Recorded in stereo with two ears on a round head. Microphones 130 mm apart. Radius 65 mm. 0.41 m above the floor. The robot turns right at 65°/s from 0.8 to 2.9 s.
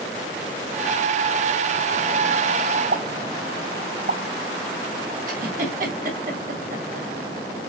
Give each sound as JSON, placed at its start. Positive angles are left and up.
{"t": 2.9, "sound": "a pop", "side_deg": -65, "distance_m": 3.5}
{"t": 5.3, "sound": "a giggle", "side_deg": -60, "distance_m": 2.5}